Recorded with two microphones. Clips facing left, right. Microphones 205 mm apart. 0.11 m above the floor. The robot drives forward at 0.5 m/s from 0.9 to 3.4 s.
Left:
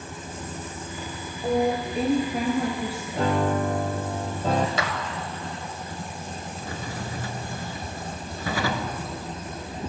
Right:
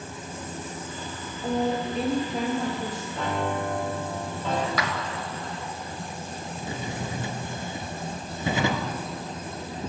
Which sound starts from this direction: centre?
A woman speaking, at 1.4 s.